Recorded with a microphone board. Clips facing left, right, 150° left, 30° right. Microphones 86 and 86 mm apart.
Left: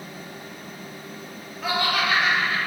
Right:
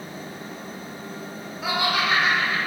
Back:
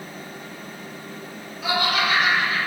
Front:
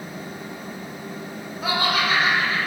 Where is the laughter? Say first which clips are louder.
Even, even; 10° right, 0.9 m; by 2.7 s 80° right, 1.0 m.